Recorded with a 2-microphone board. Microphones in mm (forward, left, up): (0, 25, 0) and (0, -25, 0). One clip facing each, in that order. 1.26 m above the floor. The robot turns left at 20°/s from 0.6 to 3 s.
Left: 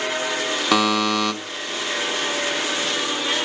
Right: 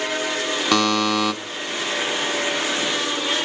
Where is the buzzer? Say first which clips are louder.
Even; 5° left (ahead or behind), 1.2 m; by 1.3 s 5° right (ahead or behind), 1.2 m.